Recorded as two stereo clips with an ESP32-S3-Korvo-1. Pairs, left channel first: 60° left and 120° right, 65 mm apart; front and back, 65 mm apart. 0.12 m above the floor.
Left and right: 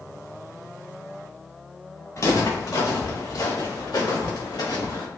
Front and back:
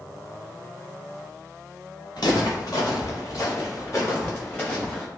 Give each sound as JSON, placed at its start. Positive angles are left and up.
{"t": 2.2, "sound": "footsteps", "azimuth_deg": 25, "distance_m": 1.9}